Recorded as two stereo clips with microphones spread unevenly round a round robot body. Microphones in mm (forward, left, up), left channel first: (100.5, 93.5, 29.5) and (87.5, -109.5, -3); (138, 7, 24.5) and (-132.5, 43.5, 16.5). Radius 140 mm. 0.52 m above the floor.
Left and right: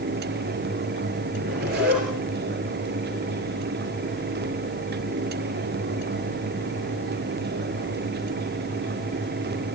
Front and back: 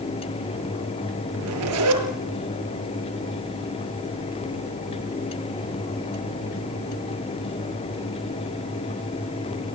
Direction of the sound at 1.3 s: 150° right.